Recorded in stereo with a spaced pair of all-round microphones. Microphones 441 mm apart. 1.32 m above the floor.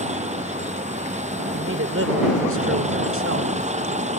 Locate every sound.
0.0 s a vehicle: 15° right (ahead or behind)
1.5 s a man speaking: 30° right (ahead or behind)